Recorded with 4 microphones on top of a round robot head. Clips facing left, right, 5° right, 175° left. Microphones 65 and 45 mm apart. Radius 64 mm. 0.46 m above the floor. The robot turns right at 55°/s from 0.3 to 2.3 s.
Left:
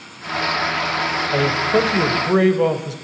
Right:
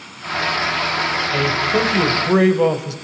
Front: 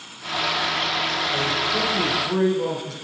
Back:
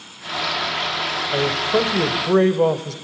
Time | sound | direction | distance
1.3 | a man speaking | 125° left | 3 m